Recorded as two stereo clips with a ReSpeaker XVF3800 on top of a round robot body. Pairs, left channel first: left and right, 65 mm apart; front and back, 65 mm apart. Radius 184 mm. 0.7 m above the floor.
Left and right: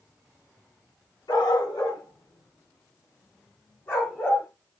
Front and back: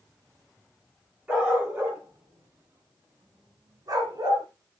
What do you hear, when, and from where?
1.3 s a dog barking: 105° left, 4.5 m; by 4.5 s 155° left, 5.5 m